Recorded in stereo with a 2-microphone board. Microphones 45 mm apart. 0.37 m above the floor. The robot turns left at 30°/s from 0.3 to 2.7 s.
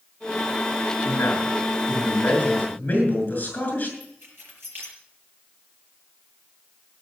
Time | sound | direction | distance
1.1 | a man speaking | 85° left | 6.5 m
4.0 | keys jangling | 55° right (ahead or behind) | 5 m